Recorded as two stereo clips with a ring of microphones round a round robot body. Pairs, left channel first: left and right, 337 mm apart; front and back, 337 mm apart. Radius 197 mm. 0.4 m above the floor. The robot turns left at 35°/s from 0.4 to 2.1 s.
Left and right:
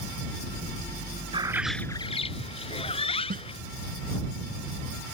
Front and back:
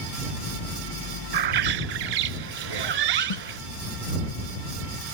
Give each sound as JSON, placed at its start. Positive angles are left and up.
{"t": 1.3, "sound": "a bird", "azimuth_deg": -165}
{"t": 3.3, "sound": "a snare drum", "azimuth_deg": -20}